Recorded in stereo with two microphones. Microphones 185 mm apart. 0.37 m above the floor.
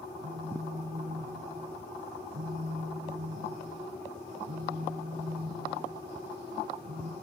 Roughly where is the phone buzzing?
Right.